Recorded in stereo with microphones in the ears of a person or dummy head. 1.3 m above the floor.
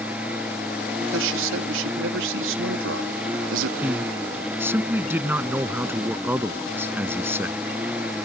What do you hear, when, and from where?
0.0 s a lawn mower: 10° right (ahead or behind)
1.0 s a man speaking: 85° right
3.8 s a man speaking: 10° right (ahead or behind)